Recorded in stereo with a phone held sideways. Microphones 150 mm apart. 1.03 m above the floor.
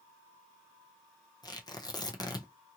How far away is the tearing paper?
About 0.6 m.